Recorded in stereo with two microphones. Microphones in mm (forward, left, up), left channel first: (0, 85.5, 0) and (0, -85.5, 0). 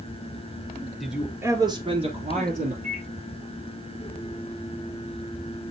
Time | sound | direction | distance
1.0 | a man speaking | centre (ahead or behind) | 1.5 m
2.8 | a microwave | 45° right (ahead or behind) | 4 m